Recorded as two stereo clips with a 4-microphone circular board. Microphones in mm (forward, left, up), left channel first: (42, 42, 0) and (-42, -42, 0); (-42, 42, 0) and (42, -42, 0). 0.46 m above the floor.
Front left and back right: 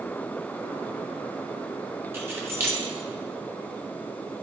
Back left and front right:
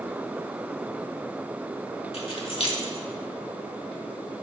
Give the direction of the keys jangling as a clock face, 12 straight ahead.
7 o'clock.